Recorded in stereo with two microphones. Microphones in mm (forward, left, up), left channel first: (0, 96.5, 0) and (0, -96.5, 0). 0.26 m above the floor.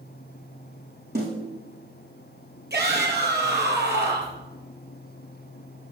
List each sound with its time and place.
1.1 s a snare drum: 55° right (ahead or behind), 5.5 m
2.7 s a shout: 55° right (ahead or behind), 5 m